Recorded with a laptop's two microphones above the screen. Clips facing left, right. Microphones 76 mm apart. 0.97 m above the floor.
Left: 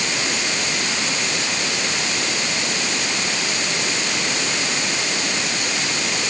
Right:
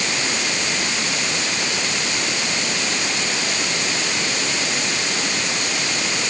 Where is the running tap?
I don't hear a running tap.